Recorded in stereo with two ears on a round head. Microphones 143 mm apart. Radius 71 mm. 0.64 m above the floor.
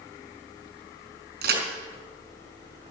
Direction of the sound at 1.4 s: 65° right (ahead or behind).